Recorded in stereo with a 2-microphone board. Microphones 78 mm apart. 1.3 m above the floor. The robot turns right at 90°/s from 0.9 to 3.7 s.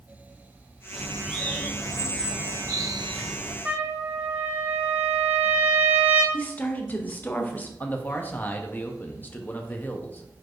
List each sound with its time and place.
0.9 s a bird: 20° right, 1.3 m; by 3.5 s 145° right, 1.3 m
3.6 s a trumpet: 15° right (ahead or behind), 0.8 m; by 6.2 s 20° right (ahead or behind), 0.8 m
6.3 s a woman speaking: 20° left (ahead or behind), 0.6 m
7.8 s a man speaking: 20° left (ahead or behind), 0.6 m